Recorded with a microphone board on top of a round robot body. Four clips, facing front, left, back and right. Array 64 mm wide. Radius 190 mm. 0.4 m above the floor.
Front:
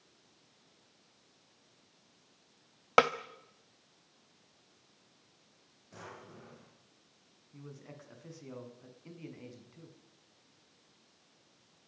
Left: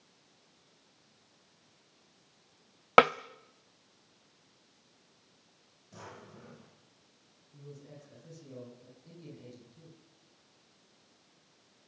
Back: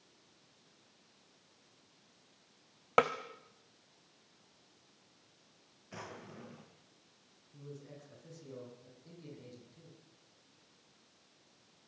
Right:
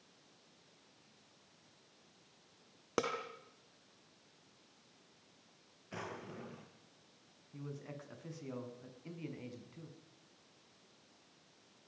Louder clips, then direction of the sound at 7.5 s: Right 3 dB, even; 60° right.